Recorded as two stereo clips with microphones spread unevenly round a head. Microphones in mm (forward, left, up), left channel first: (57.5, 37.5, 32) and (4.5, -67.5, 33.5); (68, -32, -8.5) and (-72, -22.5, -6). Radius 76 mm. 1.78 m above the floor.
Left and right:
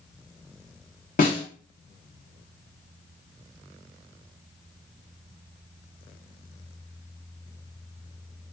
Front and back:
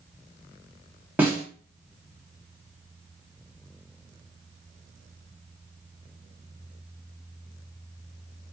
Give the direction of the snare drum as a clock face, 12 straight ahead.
9 o'clock.